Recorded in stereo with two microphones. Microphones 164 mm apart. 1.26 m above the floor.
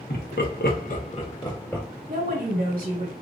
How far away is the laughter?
About 1.3 m.